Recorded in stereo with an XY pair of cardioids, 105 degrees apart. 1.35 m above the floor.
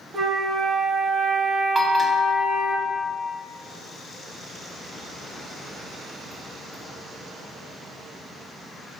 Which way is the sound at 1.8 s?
20° right.